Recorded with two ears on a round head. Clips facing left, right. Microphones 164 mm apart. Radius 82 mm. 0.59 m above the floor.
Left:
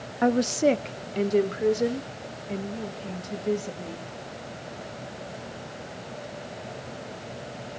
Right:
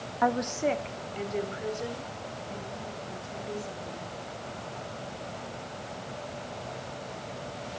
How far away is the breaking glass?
I don't hear breaking glass.